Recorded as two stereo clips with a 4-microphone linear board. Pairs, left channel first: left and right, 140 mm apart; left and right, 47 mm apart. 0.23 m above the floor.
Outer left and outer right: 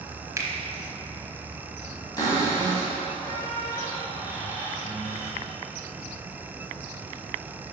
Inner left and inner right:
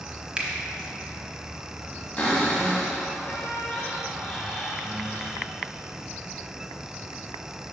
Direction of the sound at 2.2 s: 25° left (ahead or behind).